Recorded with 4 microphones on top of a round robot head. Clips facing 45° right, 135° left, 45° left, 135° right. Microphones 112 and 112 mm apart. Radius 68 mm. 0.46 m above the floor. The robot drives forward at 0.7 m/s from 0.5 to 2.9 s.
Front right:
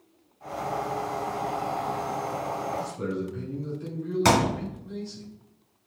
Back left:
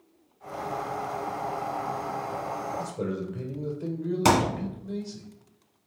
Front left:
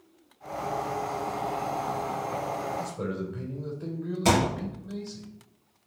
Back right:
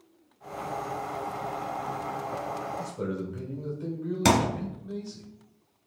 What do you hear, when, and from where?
2.8 s a man speaking: 140° left, 2.5 m; by 5.2 s 145° left, 2.5 m
4.2 s a thud: 150° right, 1.6 m